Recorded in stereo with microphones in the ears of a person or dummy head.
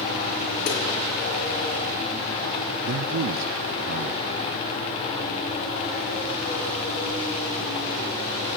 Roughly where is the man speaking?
Right.